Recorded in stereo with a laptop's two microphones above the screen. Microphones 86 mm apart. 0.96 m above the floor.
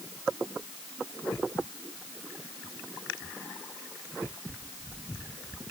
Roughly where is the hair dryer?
I don't hear a hair dryer.